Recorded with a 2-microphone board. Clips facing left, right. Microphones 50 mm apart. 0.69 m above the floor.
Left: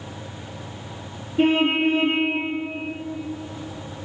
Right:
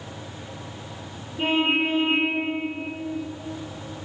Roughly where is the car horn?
Left.